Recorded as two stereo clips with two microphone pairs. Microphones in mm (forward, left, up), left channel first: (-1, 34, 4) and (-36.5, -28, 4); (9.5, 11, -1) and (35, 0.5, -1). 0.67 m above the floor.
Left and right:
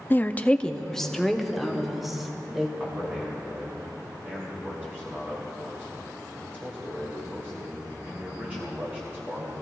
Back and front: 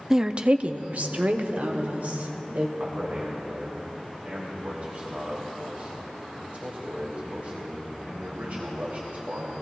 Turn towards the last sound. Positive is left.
turn(degrees=-55)